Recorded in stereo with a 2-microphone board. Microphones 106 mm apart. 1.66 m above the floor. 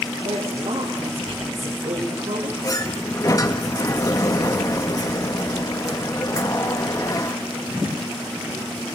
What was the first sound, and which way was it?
A woman speaking, 75° right (ahead or behind).